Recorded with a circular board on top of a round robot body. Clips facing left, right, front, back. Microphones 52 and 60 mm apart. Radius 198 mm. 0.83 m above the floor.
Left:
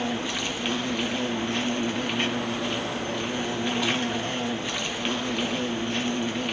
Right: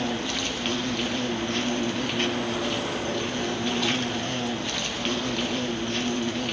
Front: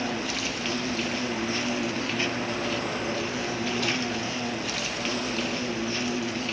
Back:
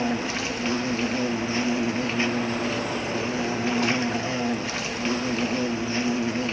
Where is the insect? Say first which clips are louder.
Even, back 3 dB; 155° left, 1.2 m.